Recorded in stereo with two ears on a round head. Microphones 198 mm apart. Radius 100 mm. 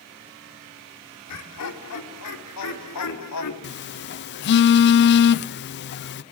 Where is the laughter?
85° left, 5 m; by 3.5 s 80° left, 3.5 m.